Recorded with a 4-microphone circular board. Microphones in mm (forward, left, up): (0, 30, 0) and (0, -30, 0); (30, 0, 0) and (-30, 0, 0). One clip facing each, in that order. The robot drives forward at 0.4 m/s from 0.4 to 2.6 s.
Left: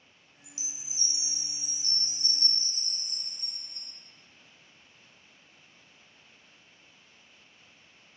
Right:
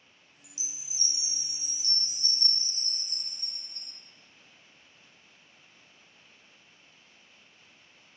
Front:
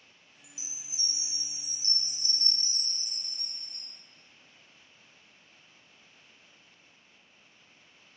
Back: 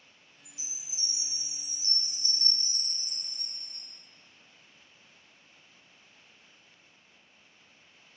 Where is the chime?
70° left, 0.8 m; by 3.9 s 155° left, 1.1 m.